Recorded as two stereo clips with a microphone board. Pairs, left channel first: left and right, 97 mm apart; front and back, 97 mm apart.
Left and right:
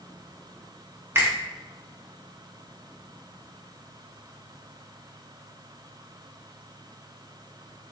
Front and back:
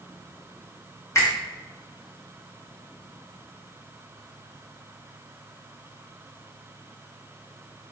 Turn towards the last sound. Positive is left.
turn(degrees=-40)